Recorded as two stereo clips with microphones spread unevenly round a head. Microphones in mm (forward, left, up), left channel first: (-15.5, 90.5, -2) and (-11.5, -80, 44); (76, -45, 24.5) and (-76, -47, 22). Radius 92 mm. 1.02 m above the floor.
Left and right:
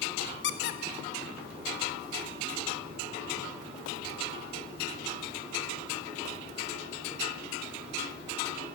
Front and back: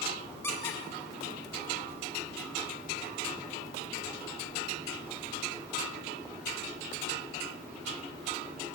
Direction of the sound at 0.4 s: 80° left.